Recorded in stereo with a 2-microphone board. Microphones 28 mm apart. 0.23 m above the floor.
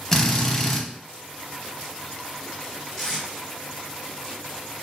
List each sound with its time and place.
0.1 s a drill: 20° left (ahead or behind), 0.5 m
3.0 s tape being pulled: 10° left (ahead or behind), 1.0 m